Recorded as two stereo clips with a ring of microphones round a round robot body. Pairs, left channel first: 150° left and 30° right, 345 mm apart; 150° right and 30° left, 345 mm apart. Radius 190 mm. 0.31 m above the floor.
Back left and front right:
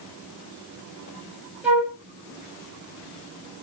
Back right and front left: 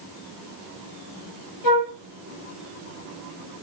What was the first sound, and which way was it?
A flute, 115° right.